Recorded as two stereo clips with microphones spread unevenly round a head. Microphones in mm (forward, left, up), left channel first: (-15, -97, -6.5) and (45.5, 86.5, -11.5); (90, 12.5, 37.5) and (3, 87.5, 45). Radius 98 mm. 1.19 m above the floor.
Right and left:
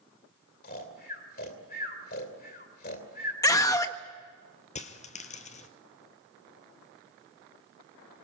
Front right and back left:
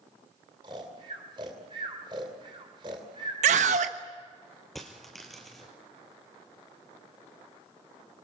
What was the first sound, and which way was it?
Snoring, 155° right.